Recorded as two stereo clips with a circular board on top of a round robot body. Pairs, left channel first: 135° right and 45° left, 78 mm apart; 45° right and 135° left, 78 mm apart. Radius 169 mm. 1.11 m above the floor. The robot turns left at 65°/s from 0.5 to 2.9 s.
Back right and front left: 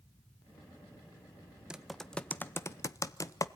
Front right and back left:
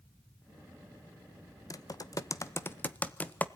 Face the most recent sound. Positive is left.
turn(degrees=-110)